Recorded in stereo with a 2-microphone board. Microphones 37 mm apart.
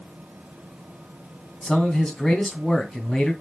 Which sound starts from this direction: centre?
A man speaking, at 1.6 s.